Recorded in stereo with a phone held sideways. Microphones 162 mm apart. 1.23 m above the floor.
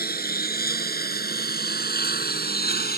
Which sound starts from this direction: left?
A lawn mower, at 0.0 s.